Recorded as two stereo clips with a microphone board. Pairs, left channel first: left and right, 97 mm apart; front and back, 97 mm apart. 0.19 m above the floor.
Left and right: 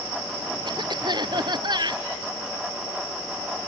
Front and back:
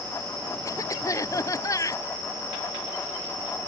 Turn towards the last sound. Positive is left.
turn(degrees=-55)